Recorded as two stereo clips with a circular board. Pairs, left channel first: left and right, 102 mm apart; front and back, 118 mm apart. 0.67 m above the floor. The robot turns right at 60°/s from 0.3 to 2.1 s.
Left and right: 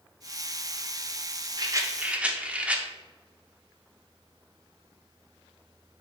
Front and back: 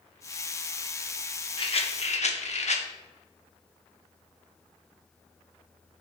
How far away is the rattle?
About 0.8 m.